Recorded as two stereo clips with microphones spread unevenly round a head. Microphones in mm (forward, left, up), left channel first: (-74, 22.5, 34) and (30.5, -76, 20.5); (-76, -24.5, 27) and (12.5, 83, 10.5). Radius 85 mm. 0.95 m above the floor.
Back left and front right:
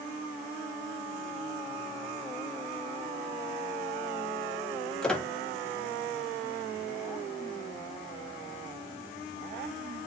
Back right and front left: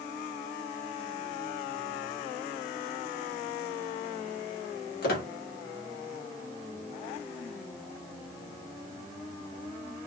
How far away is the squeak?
About 0.9 m.